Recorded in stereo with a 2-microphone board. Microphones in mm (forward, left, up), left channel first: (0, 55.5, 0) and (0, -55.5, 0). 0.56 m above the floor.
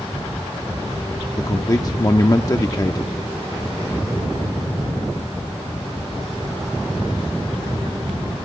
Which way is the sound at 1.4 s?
30° left (ahead or behind).